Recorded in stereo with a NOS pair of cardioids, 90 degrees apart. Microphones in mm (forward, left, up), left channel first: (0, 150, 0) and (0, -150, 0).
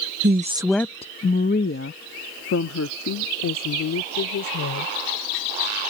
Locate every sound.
0.2 s a woman speaking: 40° right; by 4.9 s 65° left